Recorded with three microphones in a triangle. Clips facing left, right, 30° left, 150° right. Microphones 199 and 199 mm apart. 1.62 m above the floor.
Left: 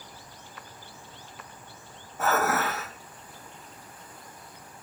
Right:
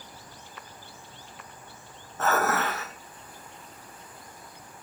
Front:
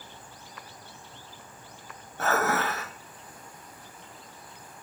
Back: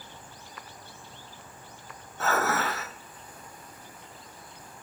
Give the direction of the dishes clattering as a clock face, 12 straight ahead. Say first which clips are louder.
Even, front 1 dB; 12 o'clock.